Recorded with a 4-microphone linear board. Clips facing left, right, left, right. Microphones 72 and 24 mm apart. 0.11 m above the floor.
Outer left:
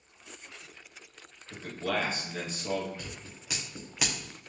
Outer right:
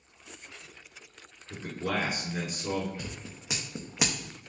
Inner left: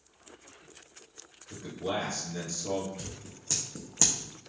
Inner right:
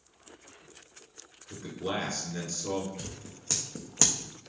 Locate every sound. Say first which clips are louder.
1.5 s a man speaking: even, even; 15° right (ahead or behind), 1.7 m
3.0 s scissors: outer right 3 dB, inner right 1 dB; 20° right (ahead or behind), 1.3 m